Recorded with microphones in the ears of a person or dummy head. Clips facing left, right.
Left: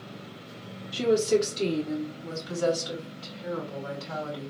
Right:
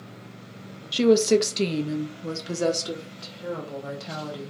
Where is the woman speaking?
50° right (ahead or behind), 0.8 m; by 4.5 s 65° right (ahead or behind), 2 m.